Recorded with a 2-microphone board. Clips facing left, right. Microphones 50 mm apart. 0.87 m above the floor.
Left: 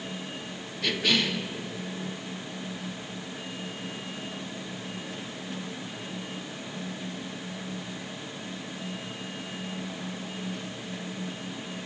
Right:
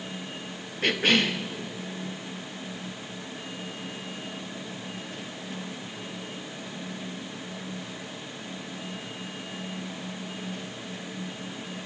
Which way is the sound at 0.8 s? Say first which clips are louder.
Right 3 dB; 45° right (ahead or behind).